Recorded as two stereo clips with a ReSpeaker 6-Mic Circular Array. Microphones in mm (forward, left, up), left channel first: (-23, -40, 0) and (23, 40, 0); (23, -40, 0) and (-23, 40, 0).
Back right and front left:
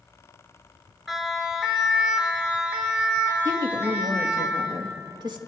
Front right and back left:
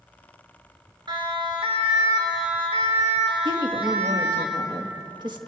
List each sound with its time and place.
1.1 s a siren: 150° left, 4 m; by 4.5 s 125° left, 5.5 m
3.5 s a woman speaking: 90° left, 2 m